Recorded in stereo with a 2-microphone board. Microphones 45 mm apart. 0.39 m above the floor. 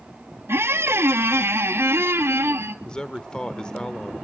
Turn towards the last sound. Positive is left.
turn(degrees=20)  # may be behind; listen again after turning